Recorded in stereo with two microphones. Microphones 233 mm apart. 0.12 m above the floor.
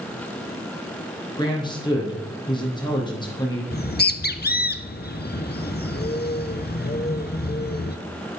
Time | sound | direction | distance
1.4 | a man speaking | 20° left (ahead or behind) | 4.5 m
3.7 | a bird | 45° left (ahead or behind) | 0.8 m